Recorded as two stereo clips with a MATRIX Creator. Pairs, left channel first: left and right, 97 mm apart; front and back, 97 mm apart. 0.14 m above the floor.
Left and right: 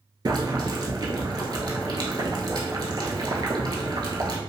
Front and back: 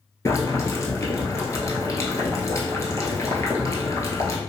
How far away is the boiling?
About 0.7 m.